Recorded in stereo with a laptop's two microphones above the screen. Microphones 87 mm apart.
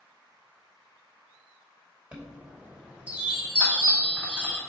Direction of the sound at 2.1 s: 15° right (ahead or behind).